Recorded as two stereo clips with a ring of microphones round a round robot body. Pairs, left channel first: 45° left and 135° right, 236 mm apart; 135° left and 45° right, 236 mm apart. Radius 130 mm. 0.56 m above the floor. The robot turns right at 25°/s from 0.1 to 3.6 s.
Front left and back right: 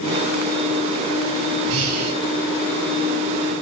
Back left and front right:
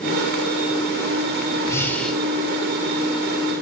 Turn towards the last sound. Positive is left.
turn(degrees=-100)